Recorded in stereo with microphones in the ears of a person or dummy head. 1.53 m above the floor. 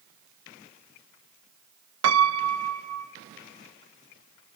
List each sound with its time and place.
2.0 s a piano: 75° right (ahead or behind), 0.5 m